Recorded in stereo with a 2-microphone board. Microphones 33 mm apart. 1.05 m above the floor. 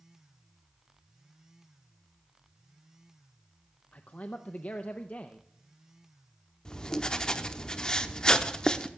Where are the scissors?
I don't hear scissors.